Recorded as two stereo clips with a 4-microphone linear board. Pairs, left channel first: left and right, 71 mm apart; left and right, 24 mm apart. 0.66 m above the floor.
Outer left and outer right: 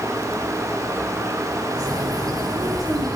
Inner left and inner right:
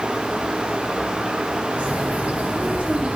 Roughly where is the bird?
Right.